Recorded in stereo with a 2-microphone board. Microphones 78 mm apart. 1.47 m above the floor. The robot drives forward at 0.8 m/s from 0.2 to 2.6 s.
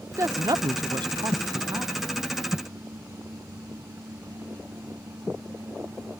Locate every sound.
0.1 s a woman speaking: 40° right (ahead or behind); by 2.1 s 30° right (ahead or behind)